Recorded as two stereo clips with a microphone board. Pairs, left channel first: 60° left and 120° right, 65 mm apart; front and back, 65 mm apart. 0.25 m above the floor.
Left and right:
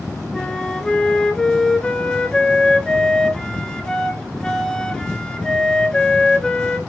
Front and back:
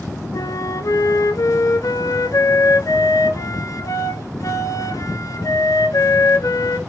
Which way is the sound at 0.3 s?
20° right.